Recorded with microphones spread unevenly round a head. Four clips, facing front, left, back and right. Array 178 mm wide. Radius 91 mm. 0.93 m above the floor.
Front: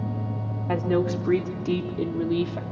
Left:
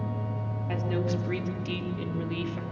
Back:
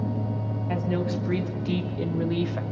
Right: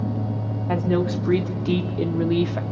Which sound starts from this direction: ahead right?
A woman speaking, at 0.7 s.